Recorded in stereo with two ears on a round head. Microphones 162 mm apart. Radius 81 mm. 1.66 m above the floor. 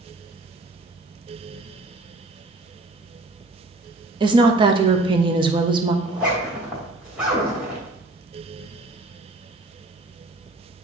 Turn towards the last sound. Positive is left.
turn(degrees=-5)  # may be behind; listen again after turning